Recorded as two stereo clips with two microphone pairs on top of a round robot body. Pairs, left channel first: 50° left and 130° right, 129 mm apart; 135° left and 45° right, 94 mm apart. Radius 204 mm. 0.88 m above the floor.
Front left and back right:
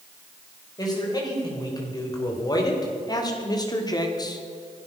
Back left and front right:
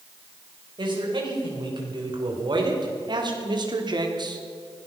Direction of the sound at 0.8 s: 10° right.